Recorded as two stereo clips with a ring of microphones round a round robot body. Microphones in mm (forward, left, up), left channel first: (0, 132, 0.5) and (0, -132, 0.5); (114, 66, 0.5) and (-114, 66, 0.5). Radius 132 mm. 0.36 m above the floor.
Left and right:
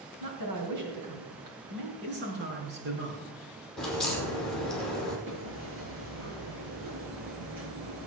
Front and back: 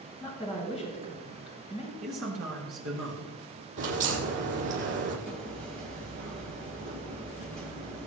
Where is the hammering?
130° right, 5.5 m.